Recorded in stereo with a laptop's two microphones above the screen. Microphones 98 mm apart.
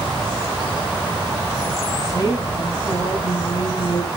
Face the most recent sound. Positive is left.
turn(degrees=40)  # may be behind; listen again after turning